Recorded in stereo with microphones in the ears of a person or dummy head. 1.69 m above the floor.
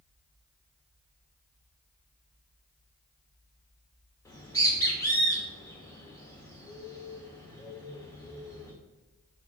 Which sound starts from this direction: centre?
A bird, at 4.2 s.